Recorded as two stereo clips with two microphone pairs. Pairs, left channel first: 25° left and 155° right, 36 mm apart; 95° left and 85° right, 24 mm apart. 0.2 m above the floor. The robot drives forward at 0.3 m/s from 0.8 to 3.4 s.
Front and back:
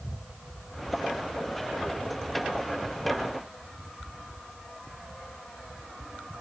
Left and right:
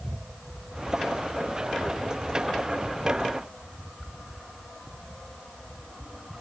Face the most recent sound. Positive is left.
No sound to turn to.